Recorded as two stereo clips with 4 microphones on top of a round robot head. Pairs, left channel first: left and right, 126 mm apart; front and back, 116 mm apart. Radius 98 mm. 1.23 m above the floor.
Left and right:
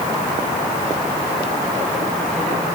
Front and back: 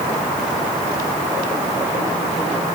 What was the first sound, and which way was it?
Only background noise.